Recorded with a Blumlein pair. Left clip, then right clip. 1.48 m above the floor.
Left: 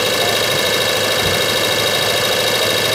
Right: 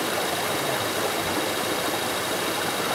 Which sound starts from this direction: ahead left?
An engine running, at 0.0 s.